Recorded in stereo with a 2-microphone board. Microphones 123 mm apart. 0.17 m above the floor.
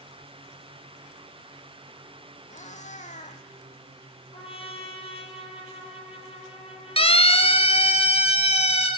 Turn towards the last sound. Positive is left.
turn(degrees=55)  # may be behind; listen again after turning